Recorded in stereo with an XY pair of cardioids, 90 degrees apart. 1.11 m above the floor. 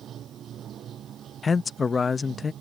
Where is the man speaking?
40° left.